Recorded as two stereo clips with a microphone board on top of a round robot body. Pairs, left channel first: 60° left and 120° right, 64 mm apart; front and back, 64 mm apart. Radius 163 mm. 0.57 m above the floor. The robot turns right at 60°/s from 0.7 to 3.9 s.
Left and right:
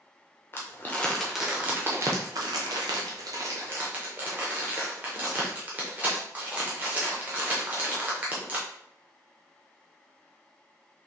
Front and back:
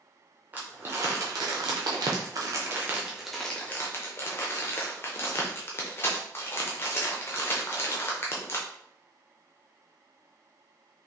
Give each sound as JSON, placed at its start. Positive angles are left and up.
{"t": 0.5, "sound": "crumpling", "azimuth_deg": 115, "distance_m": 0.6}